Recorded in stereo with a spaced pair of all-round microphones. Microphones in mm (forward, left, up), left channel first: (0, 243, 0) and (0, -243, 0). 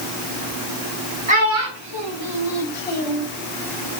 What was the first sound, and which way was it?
A child speaking, 15° right (ahead or behind).